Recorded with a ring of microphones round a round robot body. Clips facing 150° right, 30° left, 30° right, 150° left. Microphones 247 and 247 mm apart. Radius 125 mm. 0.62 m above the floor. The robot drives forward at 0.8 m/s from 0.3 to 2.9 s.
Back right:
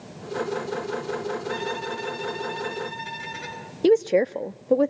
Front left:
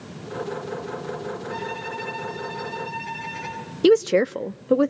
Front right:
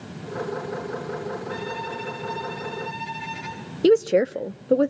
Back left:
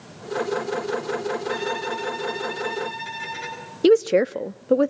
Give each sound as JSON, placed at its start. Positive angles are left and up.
{"t": 1.5, "sound": "a violin", "azimuth_deg": 175, "distance_m": 9.5}
{"t": 3.8, "sound": "a woman speaking", "azimuth_deg": 65, "distance_m": 0.6}